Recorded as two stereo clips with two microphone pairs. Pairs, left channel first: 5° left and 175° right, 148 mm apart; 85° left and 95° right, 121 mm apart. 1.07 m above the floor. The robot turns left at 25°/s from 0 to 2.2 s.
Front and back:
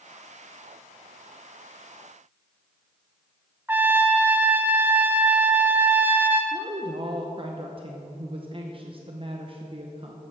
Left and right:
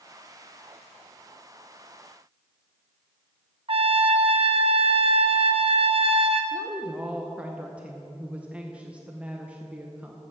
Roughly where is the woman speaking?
Behind.